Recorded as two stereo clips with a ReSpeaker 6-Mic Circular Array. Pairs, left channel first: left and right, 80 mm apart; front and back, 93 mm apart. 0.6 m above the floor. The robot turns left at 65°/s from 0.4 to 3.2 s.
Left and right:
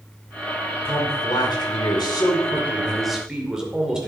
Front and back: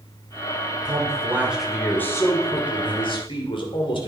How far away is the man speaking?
About 2.5 m.